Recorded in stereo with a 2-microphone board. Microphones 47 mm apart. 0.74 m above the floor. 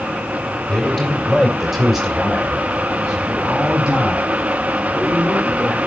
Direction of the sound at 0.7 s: 10° left (ahead or behind).